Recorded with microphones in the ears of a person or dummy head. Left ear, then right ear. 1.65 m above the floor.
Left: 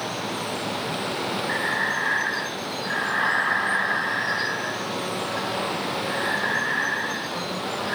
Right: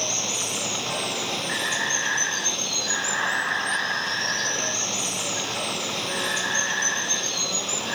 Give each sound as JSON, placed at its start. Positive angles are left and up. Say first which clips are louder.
{"t": 0.0, "sound": "running water", "louder": "right 3 dB", "side_deg": -45}
{"t": 1.5, "sound": "breathing", "louder": "left 1 dB", "side_deg": 5}